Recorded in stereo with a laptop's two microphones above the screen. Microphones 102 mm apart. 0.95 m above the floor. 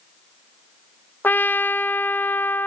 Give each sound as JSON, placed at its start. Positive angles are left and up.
{"t": 1.2, "sound": "a trumpet", "side_deg": 20, "distance_m": 0.6}